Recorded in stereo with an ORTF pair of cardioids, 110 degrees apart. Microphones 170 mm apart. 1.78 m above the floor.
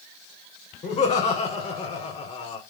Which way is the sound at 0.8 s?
40° left.